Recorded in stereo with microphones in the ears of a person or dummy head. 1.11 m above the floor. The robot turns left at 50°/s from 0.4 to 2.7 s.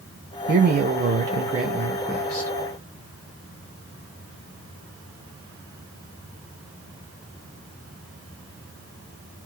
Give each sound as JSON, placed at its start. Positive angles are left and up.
{"t": 0.5, "sound": "a man speaking", "azimuth_deg": -90, "distance_m": 0.6}